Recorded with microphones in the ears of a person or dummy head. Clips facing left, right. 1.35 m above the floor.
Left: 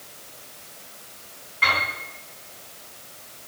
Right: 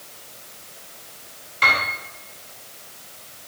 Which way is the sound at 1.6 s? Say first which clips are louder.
Right 2 dB; 55° right (ahead or behind).